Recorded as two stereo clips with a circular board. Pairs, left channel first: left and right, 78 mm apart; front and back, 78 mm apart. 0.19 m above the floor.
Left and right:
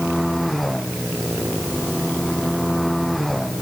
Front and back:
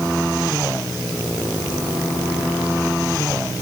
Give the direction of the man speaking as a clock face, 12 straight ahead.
I don't hear a man speaking.